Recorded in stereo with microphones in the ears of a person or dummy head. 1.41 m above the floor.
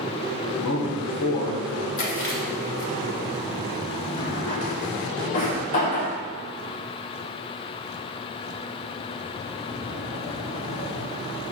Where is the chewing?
70° left (ahead or behind), 3 m.